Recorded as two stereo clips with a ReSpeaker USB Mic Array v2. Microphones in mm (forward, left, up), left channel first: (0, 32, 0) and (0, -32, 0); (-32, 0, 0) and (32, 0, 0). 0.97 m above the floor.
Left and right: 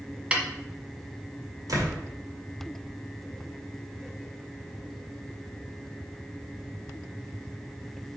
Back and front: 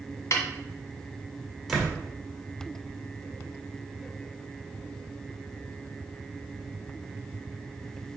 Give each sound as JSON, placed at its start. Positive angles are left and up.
{"t": 0.3, "sound": "a snare drum", "azimuth_deg": -155, "distance_m": 1.3}
{"t": 1.7, "sound": "a door slam", "azimuth_deg": -90, "distance_m": 2.0}